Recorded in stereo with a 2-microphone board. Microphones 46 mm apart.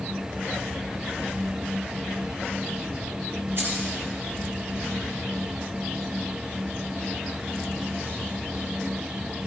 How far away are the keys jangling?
About 4 m.